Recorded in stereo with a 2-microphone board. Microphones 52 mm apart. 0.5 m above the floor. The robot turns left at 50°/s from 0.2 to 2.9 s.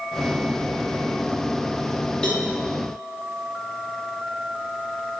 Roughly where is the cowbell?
Centre.